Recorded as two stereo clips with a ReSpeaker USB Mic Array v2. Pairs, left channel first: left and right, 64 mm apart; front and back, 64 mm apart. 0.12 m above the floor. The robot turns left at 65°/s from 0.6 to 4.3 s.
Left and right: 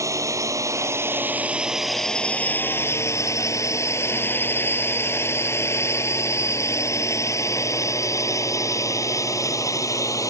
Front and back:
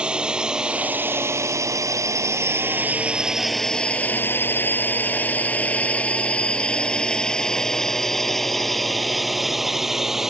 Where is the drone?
110° right; by 10.3 s 95° left.